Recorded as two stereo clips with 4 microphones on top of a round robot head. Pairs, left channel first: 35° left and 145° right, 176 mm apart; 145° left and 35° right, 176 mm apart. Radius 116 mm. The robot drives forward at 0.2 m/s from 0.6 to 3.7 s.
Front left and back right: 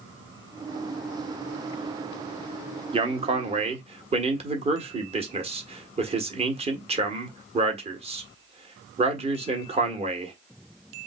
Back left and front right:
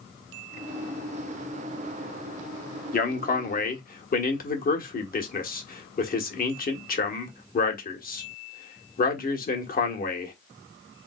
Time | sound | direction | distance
2.9 | a man speaking | 165° left | 1.3 m